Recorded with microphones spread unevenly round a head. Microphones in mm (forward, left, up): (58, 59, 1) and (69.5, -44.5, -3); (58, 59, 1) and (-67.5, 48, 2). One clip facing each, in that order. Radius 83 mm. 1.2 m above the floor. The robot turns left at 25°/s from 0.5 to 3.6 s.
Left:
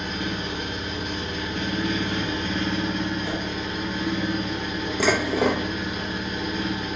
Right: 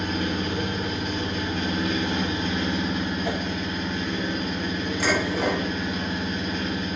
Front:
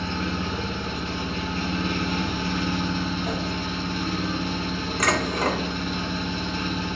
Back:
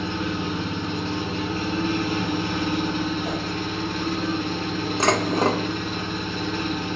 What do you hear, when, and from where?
0.0 s an engine running: 105° right, 1.0 m; by 7.0 s 175° left, 1.0 m
3.2 s a whoosh: 100° right, 0.9 m; by 3.4 s 105° right, 0.9 m
5.0 s dishes clattering: 120° left, 0.7 m